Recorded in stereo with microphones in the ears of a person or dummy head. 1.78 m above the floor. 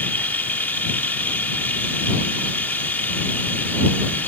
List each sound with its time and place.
0.0 s running water: 5° left (ahead or behind)